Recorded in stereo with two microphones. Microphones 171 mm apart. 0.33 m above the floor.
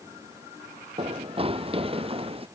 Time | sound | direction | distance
1.0 | running footsteps | 35° right (ahead or behind) | ?